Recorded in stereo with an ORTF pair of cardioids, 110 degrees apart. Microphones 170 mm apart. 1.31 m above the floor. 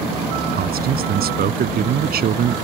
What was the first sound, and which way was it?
A man speaking, 60° right.